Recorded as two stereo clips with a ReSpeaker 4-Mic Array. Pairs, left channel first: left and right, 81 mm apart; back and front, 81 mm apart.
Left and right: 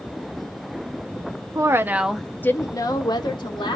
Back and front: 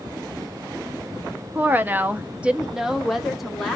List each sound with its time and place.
1.6 s a woman speaking: 60° right, 0.6 m; by 3.8 s 95° left, 1.2 m